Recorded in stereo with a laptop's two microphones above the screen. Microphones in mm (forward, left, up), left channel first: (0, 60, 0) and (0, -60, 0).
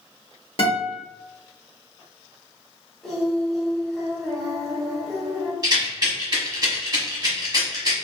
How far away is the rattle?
About 1.0 m.